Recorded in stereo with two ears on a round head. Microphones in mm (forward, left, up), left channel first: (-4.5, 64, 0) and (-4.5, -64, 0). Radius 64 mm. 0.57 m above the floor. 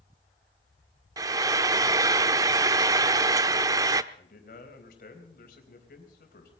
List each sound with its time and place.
1.2 s frying: 25° right (ahead or behind), 0.5 m
4.1 s a man speaking: 70° left (ahead or behind), 4 m